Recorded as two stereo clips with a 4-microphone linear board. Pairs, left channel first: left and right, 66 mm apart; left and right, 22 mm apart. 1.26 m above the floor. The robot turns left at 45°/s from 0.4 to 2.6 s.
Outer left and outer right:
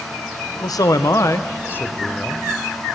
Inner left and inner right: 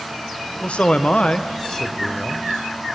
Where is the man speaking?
85° left, 0.6 m; by 2.5 s straight ahead, 0.6 m.